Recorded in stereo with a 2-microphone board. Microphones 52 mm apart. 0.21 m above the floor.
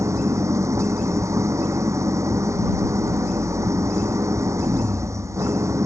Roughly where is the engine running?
Right.